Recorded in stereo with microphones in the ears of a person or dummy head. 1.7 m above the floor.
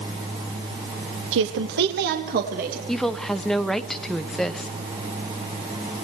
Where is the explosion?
I don't hear an explosion.